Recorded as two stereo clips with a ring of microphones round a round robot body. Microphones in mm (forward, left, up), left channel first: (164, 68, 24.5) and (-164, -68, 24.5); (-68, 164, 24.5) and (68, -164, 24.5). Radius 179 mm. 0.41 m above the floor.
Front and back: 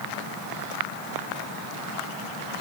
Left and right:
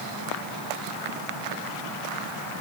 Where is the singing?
I don't hear singing.